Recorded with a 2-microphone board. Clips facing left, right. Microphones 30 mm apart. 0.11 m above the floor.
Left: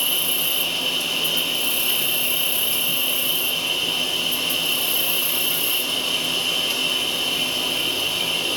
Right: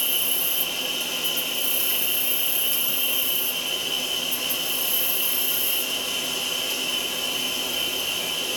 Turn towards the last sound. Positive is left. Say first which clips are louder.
# left 4 dB
turn(degrees=55)  # may be behind; listen again after turning